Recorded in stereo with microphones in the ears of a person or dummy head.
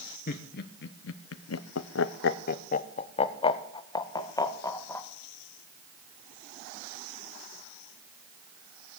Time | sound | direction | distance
0.3 | laughter | 45° left (ahead or behind) | 1.1 m